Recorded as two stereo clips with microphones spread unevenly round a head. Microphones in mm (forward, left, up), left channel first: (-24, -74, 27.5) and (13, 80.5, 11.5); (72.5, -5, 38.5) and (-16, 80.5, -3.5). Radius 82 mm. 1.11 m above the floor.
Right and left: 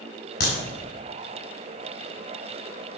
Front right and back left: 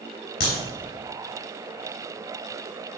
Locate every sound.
0.4 s a crack: 70° right, 4.5 m